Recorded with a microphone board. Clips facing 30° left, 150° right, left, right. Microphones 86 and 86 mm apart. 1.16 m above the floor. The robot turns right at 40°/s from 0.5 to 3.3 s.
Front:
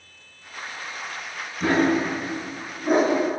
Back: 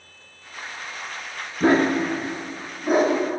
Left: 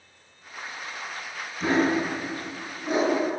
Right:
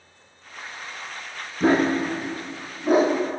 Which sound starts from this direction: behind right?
A dog barking, at 1.6 s.